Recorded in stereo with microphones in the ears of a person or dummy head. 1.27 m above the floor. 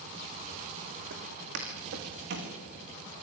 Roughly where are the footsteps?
Right.